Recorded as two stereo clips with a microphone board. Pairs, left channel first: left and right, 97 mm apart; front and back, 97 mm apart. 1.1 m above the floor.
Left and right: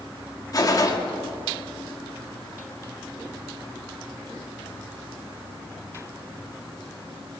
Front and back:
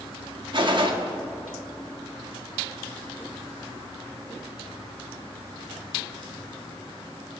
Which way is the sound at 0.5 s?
140° left.